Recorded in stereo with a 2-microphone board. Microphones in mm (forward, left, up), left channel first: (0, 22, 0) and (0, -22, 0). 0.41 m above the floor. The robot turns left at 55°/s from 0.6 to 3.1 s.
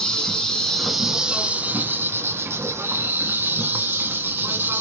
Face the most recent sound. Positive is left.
turn(degrees=-125)